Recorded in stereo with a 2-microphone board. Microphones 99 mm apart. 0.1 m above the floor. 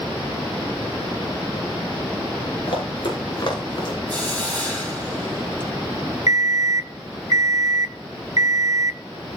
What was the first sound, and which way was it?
Running footsteps, 55° left (ahead or behind).